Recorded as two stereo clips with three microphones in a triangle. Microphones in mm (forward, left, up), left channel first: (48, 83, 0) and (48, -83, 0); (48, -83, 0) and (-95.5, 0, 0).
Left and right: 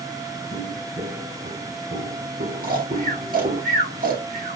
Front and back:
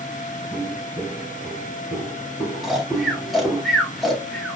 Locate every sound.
0.5 s footsteps: 100° right, 3.5 m; by 3.6 s 120° right, 2 m
2.6 s snoring: 120° right, 1.8 m